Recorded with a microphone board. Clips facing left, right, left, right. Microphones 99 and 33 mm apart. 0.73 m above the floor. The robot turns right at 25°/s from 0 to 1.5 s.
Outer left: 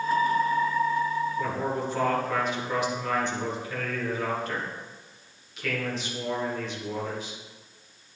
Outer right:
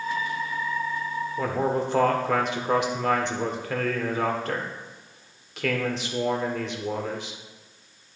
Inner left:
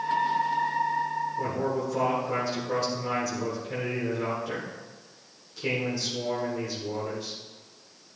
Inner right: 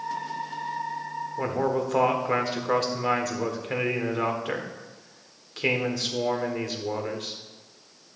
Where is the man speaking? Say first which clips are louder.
Outer right 3 dB, inner right 7 dB; 75° right (ahead or behind), 1.6 m.